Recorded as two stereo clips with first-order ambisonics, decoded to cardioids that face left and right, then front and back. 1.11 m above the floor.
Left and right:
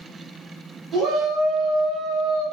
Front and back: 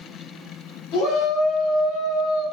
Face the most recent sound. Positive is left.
turn(degrees=15)